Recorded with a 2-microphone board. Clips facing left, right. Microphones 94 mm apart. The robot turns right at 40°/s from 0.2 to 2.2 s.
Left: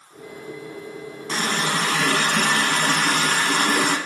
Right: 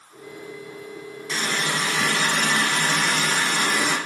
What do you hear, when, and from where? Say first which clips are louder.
1.3 s a running tap: left 3 dB; 55° left, 1.4 m; by 4.0 s 90° left, 1.4 m